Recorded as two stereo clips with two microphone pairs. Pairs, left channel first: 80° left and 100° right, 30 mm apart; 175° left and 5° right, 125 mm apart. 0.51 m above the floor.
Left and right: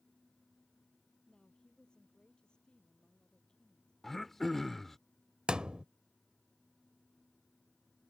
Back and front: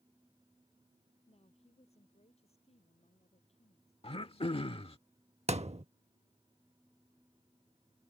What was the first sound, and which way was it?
A woman speaking, 145° left.